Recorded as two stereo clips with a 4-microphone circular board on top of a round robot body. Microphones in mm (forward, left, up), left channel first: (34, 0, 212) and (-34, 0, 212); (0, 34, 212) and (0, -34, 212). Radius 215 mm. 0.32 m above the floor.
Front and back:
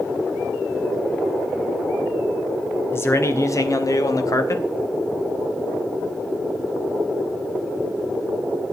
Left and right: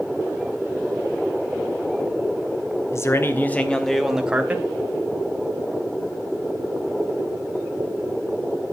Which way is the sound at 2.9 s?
50° left.